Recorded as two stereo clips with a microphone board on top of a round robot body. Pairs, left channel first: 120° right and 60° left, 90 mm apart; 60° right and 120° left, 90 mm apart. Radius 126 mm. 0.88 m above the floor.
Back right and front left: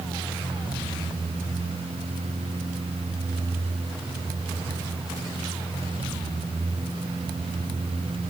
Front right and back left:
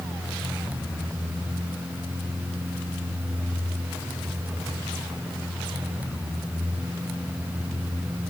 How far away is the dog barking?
No dog barking in this recording.